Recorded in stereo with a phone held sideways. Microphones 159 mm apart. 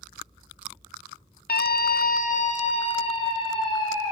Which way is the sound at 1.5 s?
80° left.